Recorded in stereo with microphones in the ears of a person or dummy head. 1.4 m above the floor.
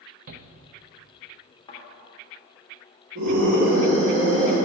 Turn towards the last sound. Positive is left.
turn(degrees=-65)  # may be behind; listen again after turning